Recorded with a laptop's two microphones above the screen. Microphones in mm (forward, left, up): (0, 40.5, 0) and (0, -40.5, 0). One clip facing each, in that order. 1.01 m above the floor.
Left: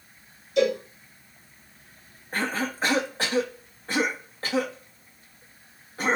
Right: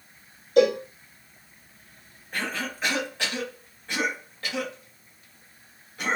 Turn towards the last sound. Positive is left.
turn(degrees=35)  # may be behind; listen again after turning